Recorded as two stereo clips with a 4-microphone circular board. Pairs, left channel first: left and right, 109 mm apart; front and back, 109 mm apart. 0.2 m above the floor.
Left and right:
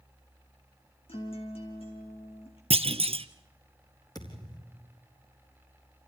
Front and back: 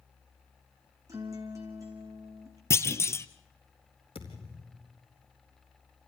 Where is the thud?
35° left, 4 m.